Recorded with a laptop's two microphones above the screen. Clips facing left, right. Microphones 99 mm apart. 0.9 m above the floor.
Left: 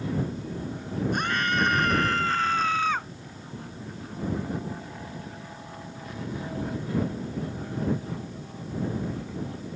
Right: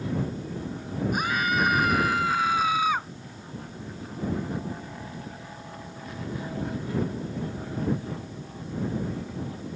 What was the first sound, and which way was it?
A scream, 5° right (ahead or behind).